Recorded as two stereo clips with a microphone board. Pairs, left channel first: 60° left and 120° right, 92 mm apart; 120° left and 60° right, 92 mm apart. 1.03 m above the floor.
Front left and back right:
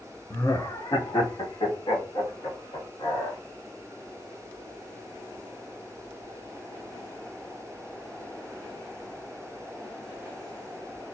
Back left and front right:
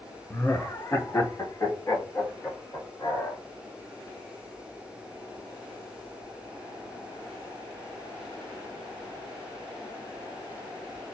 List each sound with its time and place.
0.3 s laughter: 70° left, 0.6 m; by 3.4 s 75° left, 2 m